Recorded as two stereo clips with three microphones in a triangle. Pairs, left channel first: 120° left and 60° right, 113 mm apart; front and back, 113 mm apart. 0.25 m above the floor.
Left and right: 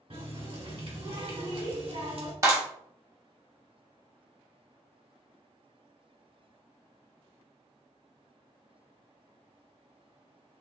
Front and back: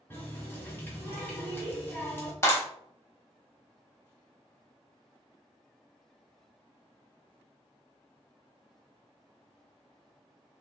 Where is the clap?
35° right, 0.9 m.